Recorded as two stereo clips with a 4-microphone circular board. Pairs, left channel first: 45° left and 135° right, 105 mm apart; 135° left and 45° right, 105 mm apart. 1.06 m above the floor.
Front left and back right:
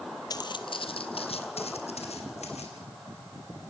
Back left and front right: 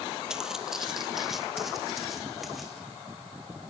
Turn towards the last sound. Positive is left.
turn(degrees=45)